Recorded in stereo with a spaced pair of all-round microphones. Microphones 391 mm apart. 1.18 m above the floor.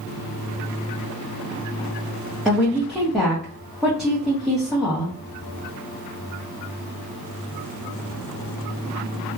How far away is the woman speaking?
About 0.7 m.